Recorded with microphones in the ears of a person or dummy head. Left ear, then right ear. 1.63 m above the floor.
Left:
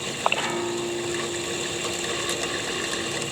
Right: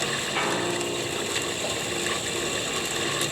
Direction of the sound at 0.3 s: 25° right (ahead or behind).